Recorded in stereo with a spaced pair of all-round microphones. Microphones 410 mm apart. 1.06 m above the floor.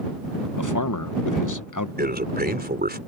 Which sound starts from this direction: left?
A man speaking, at 0.6 s.